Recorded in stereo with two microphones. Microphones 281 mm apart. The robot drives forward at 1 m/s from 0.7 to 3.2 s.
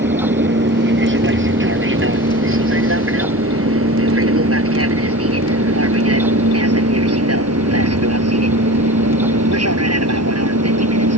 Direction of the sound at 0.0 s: 40° right (ahead or behind).